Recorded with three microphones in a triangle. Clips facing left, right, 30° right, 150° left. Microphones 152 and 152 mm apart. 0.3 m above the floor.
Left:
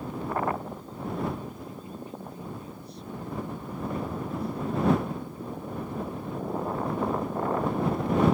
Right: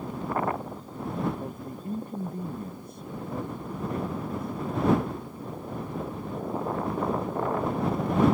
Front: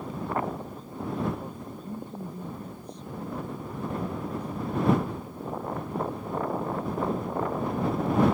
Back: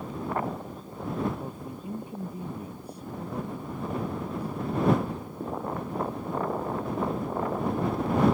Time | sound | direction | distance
1.4 | a woman speaking | 130° right | ?